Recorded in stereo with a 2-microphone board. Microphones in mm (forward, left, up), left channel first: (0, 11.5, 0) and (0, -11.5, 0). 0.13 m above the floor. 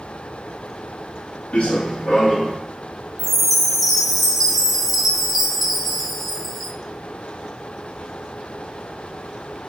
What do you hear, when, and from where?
1.5 s running footsteps: 65° left (ahead or behind), 0.6 m; by 2.6 s 20° left (ahead or behind), 1.2 m
3.2 s a chime: centre (ahead or behind), 0.5 m